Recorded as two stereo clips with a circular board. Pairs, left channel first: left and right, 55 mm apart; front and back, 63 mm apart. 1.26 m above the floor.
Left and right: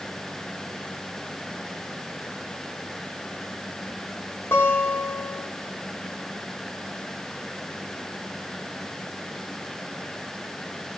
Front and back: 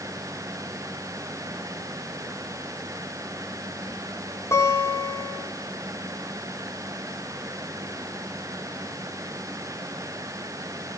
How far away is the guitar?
About 5 m.